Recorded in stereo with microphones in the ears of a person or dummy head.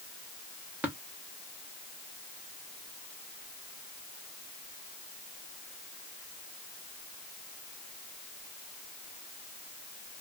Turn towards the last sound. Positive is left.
turn(degrees=-10)  # may be behind; listen again after turning